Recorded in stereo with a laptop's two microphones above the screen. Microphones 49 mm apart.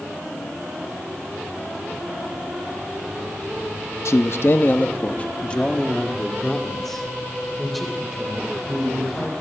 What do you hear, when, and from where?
4.0 s a man speaking: 65° left (ahead or behind), 1.1 m; by 9.3 s 5° right (ahead or behind), 4.5 m